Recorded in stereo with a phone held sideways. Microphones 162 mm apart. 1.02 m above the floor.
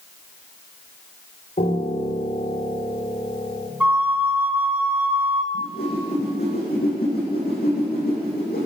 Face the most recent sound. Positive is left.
turn(degrees=70)  # may be behind; listen again after turning